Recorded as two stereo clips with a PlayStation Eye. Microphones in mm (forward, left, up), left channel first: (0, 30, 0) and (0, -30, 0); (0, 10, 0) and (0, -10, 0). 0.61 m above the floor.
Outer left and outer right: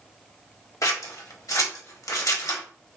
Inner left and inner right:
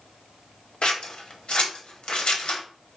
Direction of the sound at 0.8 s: 70° left (ahead or behind).